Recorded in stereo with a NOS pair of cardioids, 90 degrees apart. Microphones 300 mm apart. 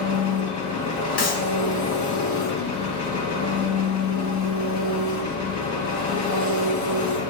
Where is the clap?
55° left, 1.9 m.